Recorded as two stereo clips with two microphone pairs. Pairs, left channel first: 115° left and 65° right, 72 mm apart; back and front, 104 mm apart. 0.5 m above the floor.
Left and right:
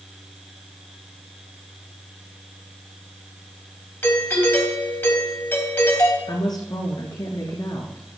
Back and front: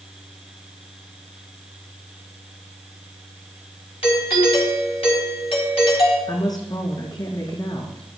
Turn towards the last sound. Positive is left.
turn(degrees=130)